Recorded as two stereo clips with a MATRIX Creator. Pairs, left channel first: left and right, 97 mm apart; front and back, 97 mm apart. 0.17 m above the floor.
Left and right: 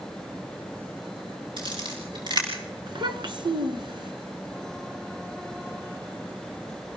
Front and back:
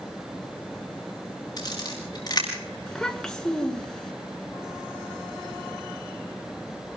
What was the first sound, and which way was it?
A camera shutter, 50° right.